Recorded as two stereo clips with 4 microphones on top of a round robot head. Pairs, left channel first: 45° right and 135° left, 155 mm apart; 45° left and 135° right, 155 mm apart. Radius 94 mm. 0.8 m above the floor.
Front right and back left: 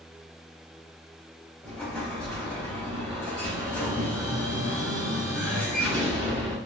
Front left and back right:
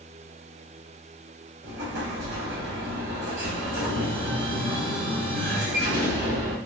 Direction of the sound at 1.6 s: 130° right.